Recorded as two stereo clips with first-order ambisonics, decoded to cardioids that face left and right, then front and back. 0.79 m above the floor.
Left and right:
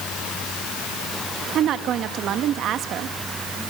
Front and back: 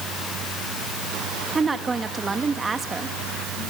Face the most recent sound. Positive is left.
turn(degrees=-115)